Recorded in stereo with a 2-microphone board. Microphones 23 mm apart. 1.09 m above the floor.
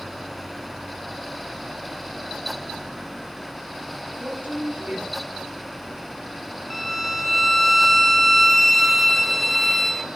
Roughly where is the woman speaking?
Right.